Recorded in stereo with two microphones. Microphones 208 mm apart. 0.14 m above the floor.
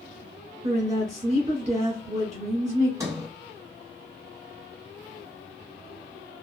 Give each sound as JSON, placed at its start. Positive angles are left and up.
{"t": 0.6, "sound": "a woman speaking", "side_deg": -20, "distance_m": 1.4}
{"t": 3.0, "sound": "a sliding door", "side_deg": -15, "distance_m": 0.9}